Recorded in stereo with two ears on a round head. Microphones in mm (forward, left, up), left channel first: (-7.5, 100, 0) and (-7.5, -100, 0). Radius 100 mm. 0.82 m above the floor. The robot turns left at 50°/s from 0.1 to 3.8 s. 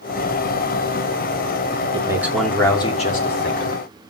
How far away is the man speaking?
About 2.5 m.